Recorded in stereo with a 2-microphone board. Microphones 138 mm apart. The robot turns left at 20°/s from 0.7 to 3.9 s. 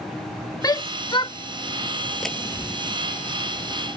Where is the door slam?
Centre (ahead or behind); by 3.0 s 15° left (ahead or behind).